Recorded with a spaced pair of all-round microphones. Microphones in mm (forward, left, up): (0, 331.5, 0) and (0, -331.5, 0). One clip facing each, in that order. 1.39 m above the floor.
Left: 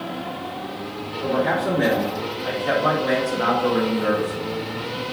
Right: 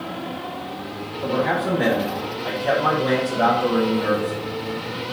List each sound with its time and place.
1.2 s a man speaking: 65° right (ahead or behind), 3.5 m; by 4.5 s 80° right, 3.5 m